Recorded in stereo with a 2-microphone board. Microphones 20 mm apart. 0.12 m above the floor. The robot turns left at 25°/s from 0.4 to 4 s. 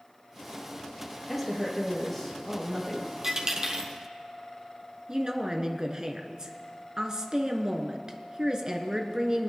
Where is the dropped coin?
25° right (ahead or behind), 1.7 m; by 3.9 s 40° right (ahead or behind), 1.7 m.